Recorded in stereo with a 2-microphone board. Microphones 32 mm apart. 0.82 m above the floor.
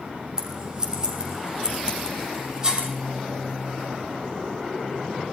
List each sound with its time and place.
0.4 s scissors: 25° right (ahead or behind), 5.5 m